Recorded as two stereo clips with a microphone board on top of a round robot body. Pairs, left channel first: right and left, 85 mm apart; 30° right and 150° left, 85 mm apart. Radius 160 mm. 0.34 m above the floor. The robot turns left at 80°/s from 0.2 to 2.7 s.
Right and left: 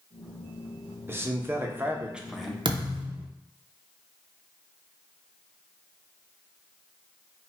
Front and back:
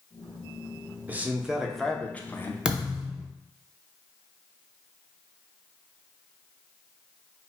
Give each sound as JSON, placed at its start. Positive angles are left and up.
{"t": 1.1, "sound": "a man speaking", "azimuth_deg": 110, "distance_m": 0.8}
{"t": 2.6, "sound": "a thud", "azimuth_deg": 70, "distance_m": 0.7}